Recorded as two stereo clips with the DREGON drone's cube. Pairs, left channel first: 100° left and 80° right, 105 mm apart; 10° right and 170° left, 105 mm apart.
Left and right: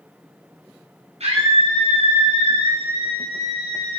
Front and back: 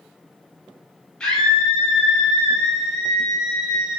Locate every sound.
1.2 s a scream: 95° right, 7.5 m; by 4.0 s 105° right, 8 m